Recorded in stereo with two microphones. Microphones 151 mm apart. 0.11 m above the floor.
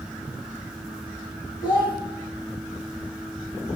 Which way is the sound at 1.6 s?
30° left (ahead or behind).